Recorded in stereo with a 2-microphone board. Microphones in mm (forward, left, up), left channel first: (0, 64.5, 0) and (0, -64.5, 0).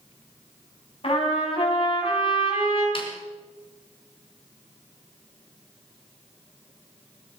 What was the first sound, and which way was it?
A trumpet, 50° left (ahead or behind).